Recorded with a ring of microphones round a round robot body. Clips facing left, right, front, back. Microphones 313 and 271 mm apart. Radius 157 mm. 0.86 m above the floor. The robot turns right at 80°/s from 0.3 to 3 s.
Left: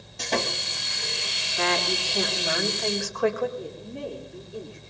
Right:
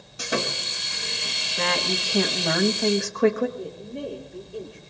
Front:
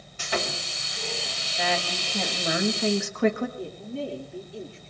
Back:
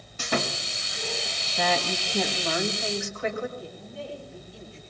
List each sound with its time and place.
0.2 s sawing: 165° right, 1.3 m; by 2.6 s 15° left, 1.3 m
1.6 s a woman speaking: 145° right, 1.3 m; by 3.5 s 30° right, 1.3 m
3.6 s a woman speaking: straight ahead, 2.5 m